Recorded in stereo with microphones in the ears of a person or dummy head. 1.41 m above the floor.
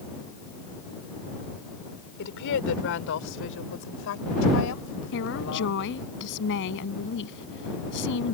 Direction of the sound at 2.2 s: 75° left (ahead or behind).